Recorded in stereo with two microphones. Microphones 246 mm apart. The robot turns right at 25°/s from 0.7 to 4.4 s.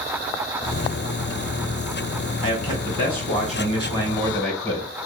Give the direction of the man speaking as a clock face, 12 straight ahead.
8 o'clock.